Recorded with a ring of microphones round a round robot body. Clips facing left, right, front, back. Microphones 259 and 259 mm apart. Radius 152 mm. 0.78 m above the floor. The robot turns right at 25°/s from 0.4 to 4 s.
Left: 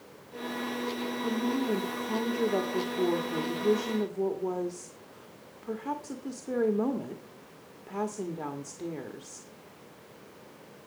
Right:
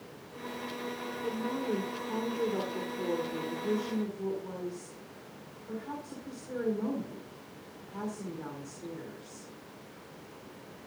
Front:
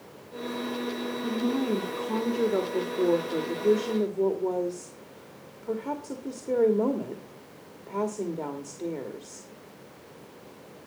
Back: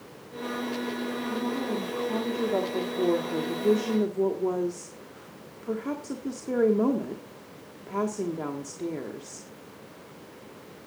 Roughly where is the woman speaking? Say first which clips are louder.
Left 4 dB, front 6 dB; ahead left.